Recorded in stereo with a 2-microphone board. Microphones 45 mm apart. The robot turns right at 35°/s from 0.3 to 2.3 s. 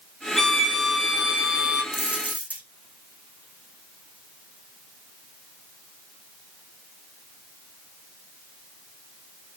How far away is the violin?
About 1.9 m.